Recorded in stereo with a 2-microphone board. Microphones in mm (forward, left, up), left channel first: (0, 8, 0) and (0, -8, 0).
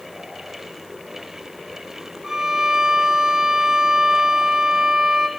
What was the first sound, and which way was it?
A violin, 35° right (ahead or behind).